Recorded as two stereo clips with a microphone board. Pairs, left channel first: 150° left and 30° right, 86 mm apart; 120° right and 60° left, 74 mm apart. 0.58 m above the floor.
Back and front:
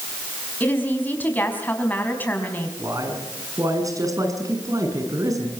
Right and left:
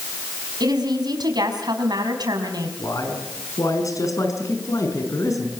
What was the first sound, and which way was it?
A woman speaking, 80° left.